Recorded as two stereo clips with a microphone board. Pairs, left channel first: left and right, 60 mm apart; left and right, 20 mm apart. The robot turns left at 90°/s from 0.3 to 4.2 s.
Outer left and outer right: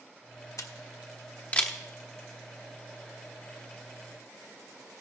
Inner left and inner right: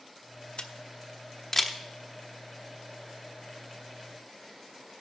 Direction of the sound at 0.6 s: 60° left (ahead or behind).